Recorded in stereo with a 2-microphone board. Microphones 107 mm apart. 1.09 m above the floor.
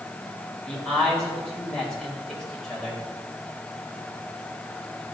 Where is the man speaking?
5° left (ahead or behind), 4.5 m.